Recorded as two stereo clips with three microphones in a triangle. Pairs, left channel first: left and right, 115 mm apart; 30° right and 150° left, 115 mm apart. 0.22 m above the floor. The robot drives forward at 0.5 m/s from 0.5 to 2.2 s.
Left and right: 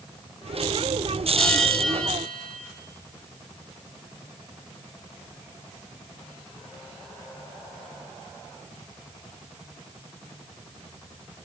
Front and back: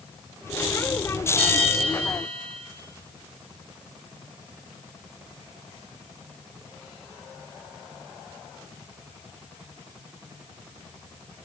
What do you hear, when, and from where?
1.4 s a bell: 5° left, 5.5 m